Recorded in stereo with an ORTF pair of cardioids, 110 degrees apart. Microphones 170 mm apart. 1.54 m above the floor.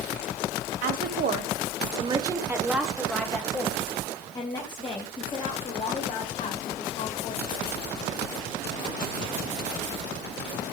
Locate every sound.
0.8 s a woman speaking: 65° right, 1.5 m; by 7.7 s 40° left, 4.5 m